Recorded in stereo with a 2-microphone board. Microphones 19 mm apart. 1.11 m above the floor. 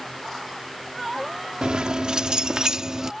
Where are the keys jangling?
60° right (ahead or behind); by 3.1 s 35° right (ahead or behind).